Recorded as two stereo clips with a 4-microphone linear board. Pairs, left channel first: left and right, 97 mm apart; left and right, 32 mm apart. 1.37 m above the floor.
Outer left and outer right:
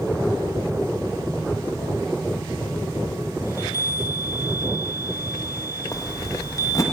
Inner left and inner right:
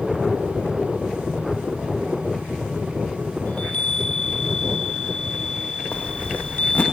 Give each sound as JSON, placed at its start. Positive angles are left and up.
{"t": 3.5, "sound": "a chime", "side_deg": 40, "distance_m": 1.1}
{"t": 5.9, "sound": "a zipper", "side_deg": 35, "distance_m": 0.9}